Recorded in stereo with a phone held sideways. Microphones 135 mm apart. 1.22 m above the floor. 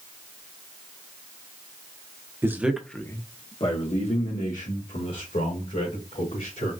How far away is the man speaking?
About 0.9 m.